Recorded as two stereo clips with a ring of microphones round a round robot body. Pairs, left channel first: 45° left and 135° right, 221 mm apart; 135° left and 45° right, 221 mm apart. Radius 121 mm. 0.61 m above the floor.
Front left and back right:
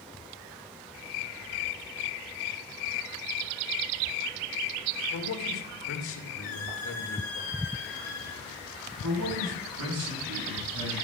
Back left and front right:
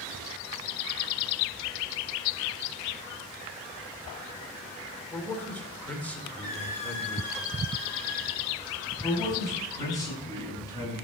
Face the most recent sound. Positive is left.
turn(degrees=-150)